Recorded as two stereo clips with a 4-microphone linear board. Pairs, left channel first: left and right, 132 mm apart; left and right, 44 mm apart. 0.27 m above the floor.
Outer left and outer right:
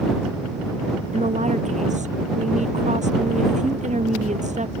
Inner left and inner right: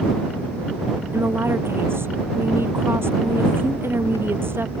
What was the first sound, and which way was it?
A woman speaking, 65° right (ahead or behind).